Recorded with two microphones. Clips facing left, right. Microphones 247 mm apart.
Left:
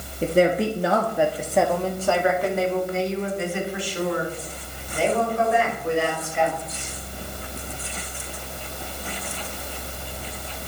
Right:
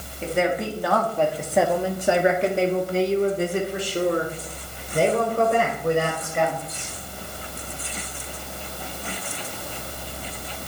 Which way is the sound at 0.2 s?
45° left (ahead or behind).